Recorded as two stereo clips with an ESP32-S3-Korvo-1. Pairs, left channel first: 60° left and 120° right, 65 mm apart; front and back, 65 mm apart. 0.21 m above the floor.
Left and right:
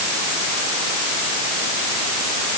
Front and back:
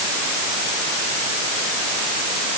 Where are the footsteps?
I don't hear footsteps.